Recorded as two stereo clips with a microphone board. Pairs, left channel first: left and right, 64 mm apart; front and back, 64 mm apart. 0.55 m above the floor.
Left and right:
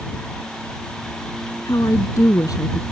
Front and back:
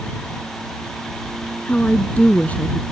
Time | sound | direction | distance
1.6 | a woman speaking | 65° left | ?